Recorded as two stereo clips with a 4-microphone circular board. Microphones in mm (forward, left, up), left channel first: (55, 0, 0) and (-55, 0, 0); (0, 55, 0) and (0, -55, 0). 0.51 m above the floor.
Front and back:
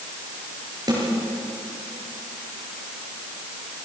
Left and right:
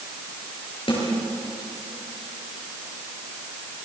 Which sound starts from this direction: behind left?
A snare drum, at 0.9 s.